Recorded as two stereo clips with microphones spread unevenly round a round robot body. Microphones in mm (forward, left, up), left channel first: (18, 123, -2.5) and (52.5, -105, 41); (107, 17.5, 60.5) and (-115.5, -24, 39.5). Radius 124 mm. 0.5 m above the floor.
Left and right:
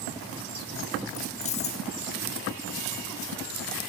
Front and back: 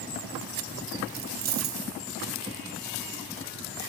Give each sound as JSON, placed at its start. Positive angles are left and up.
{"t": 1.1, "sound": "keys jangling", "azimuth_deg": 150, "distance_m": 0.7}